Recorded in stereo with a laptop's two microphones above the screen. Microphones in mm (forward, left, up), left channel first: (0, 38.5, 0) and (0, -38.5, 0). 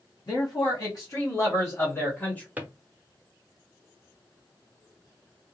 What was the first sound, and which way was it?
A man speaking, 65° left (ahead or behind).